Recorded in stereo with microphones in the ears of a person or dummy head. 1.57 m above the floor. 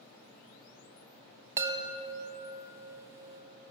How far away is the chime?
About 1.1 m.